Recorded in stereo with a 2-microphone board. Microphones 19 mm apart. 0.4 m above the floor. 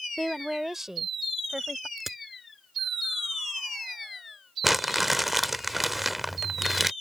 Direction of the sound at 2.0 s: 10° right (ahead or behind).